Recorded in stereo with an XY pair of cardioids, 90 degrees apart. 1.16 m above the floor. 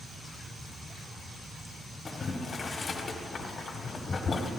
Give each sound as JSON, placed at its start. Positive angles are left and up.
{"t": 2.0, "sound": "boiling", "azimuth_deg": 40, "distance_m": 1.7}